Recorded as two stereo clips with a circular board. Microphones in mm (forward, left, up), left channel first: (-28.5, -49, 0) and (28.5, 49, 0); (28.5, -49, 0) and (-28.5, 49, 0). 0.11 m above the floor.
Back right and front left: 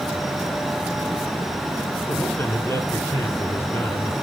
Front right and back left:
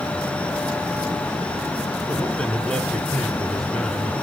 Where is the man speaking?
135° right, 1.4 m.